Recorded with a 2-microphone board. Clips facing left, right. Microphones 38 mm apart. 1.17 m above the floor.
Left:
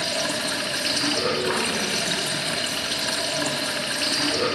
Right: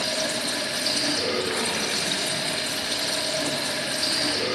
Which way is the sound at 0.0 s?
65° left (ahead or behind).